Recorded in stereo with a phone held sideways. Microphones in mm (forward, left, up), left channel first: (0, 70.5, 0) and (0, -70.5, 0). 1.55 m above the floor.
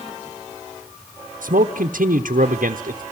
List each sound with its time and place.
1.4 s a man speaking: 70° right (ahead or behind), 1.0 m